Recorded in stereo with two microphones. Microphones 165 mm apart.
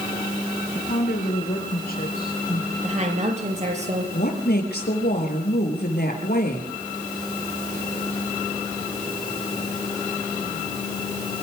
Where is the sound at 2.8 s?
45° right (ahead or behind), 5.5 m.